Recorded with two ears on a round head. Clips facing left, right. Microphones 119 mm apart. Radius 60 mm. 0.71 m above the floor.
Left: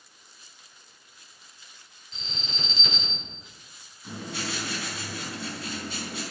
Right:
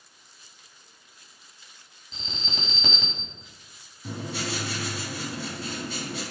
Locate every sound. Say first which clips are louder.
2.1 s an alarm: right 2 dB; 65° right (ahead or behind), 5 m
4.0 s writing: right 2 dB; 85° right, 5.5 m